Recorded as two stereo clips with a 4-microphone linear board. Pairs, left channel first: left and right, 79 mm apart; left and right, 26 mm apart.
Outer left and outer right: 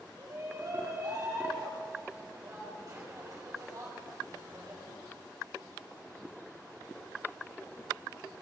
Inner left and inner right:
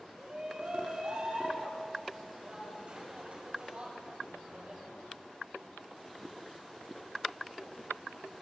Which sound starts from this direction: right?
A shout, at 0.2 s.